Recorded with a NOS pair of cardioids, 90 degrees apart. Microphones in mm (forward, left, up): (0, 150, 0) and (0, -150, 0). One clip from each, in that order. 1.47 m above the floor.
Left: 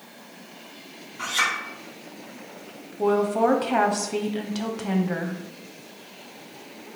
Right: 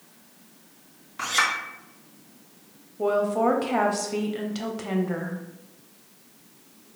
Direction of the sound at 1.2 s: 70° right.